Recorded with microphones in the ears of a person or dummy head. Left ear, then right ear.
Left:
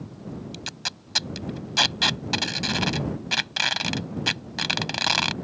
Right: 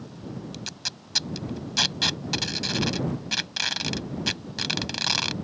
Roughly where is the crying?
No crying in this recording.